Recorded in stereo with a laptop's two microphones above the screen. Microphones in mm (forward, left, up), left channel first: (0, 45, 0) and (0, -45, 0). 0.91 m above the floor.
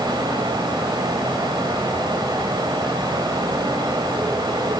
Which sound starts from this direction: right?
A fan, at 0.0 s.